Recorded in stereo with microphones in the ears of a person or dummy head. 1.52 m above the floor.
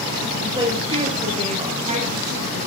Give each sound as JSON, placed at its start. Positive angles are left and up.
{"t": 0.4, "sound": "a woman speaking", "side_deg": -20, "distance_m": 8.0}